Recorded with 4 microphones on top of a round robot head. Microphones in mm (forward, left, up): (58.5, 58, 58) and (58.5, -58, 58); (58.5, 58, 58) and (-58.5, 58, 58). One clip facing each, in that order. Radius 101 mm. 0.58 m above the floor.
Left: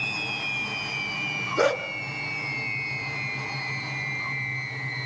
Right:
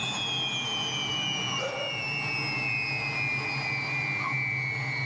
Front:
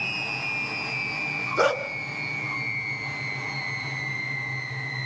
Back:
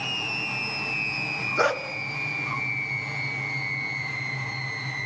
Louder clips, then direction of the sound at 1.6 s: Left 13 dB, front 2 dB; 75° left.